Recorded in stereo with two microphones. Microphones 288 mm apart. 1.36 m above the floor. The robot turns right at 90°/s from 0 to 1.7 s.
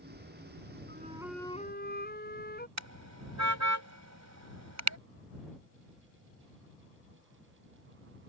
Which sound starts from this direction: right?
A car horn, at 2.8 s.